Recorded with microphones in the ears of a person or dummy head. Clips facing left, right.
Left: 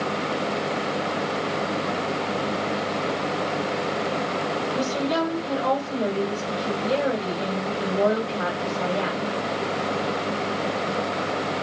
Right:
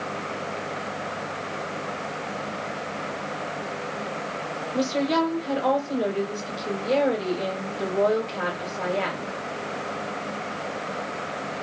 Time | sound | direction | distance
4.7 | a woman speaking | 25° right (ahead or behind) | 1.4 m